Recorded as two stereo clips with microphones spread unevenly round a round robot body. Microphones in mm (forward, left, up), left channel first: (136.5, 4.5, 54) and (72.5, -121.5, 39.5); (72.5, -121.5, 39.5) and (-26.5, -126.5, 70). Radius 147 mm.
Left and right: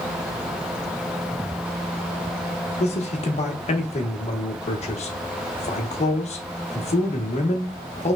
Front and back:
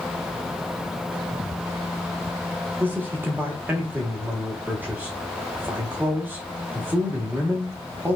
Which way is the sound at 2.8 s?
95° left.